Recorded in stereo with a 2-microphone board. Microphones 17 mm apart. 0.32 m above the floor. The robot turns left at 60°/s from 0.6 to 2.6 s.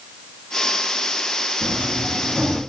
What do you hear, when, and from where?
1.6 s a sliding door: 70° right, 6 m; by 2.6 s 130° right, 6 m